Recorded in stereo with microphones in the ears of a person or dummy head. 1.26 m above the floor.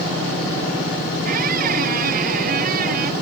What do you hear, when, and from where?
1.2 s a squeak: 45° right (ahead or behind)